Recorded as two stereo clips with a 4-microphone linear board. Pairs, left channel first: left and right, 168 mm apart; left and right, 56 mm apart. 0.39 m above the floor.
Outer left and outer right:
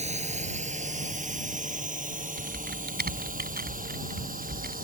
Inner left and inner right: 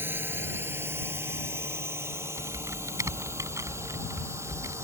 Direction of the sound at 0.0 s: 45° right (ahead or behind).